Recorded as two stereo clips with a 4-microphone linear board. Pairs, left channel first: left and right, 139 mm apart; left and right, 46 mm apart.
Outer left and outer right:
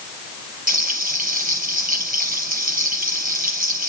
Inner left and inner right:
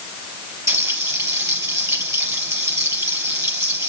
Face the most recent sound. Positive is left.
turn(degrees=-85)